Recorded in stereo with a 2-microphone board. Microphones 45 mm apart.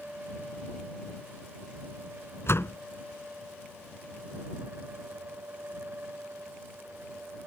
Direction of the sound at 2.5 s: 70° left (ahead or behind).